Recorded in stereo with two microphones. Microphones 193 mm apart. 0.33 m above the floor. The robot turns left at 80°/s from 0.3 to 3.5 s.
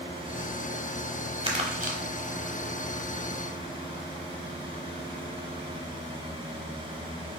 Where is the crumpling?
35° right (ahead or behind), 0.8 m; by 2.0 s 45° right (ahead or behind), 0.8 m.